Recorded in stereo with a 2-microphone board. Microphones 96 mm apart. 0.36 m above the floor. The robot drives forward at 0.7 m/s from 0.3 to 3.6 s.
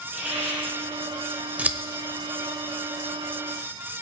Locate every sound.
0.1 s a hiss: 15° right (ahead or behind), 6.5 m
1.6 s scissors: 15° right (ahead or behind), 0.8 m; by 1.8 s 20° right (ahead or behind), 0.7 m